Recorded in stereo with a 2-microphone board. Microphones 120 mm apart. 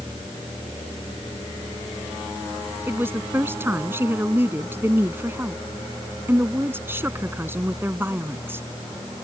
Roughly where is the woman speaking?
Centre.